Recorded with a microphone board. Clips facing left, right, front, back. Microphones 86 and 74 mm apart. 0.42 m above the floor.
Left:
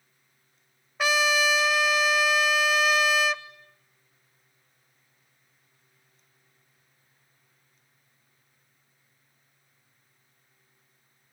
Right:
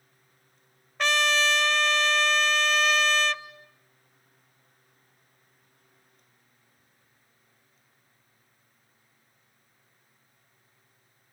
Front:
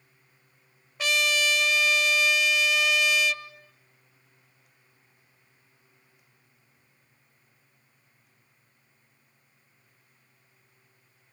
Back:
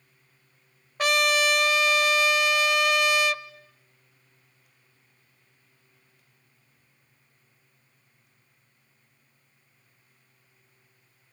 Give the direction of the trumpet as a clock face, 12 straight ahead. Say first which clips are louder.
Left 1 dB, back 4 dB; 6 o'clock.